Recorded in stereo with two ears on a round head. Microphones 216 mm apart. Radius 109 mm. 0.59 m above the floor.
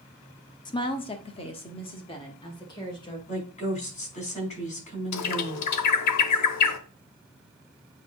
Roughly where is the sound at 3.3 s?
Left.